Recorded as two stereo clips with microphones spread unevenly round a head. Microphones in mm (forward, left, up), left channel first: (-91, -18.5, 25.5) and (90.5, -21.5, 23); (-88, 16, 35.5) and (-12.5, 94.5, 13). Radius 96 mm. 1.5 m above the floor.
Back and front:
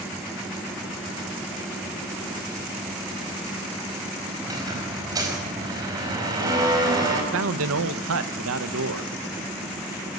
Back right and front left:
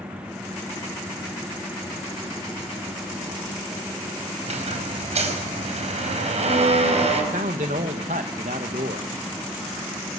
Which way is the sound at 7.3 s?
5° right.